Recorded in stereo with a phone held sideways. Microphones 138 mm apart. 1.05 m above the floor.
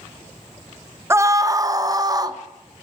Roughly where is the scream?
Centre.